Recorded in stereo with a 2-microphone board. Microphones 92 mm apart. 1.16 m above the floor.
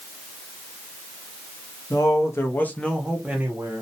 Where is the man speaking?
40° left (ahead or behind), 0.8 m; by 3.8 s 30° right (ahead or behind), 0.7 m.